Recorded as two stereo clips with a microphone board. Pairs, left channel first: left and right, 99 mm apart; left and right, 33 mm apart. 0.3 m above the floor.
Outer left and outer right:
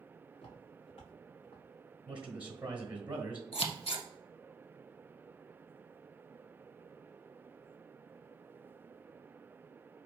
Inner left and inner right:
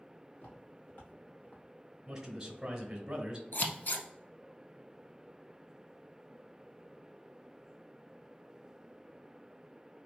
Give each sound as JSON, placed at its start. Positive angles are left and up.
{"t": 0.3, "sound": "footsteps", "side_deg": 70, "distance_m": 1.9}
{"t": 2.1, "sound": "a man speaking", "side_deg": -10, "distance_m": 1.2}
{"t": 3.5, "sound": "scissors", "side_deg": 75, "distance_m": 0.7}